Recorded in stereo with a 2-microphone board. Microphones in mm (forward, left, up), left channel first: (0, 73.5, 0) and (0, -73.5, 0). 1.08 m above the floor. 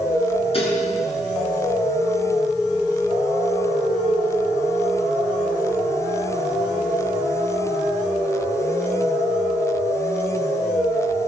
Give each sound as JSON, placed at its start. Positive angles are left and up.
{"t": 0.5, "sound": "dishes clattering", "side_deg": 40, "distance_m": 8.5}